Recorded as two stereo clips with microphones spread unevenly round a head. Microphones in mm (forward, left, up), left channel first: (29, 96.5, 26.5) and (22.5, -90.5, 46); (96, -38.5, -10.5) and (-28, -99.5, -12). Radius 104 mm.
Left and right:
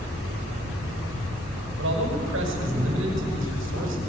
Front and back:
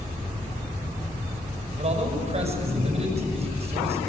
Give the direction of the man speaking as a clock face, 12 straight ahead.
4 o'clock.